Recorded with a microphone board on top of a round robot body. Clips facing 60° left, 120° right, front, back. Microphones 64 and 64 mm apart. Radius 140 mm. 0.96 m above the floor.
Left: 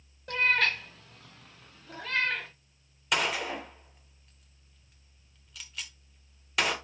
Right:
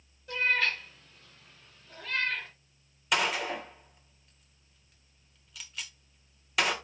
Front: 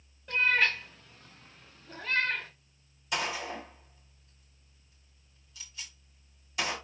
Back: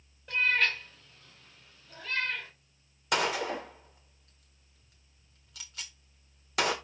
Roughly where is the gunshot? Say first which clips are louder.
Right 1 dB, back 4 dB; behind left.